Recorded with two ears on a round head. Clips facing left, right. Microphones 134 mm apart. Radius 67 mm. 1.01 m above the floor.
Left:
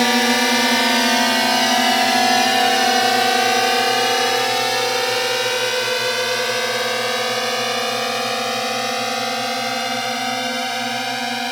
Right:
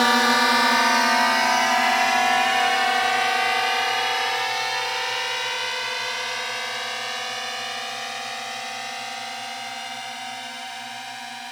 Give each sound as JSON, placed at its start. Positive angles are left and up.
{"t": 0.0, "sound": "a drone", "side_deg": 20}